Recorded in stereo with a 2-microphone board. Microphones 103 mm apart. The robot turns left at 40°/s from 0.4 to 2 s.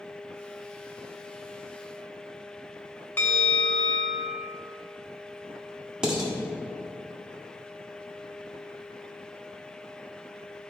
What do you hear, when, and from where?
3.2 s a bell: 20° left (ahead or behind), 1.0 m
6.0 s dishes clattering: 10° right (ahead or behind), 1.5 m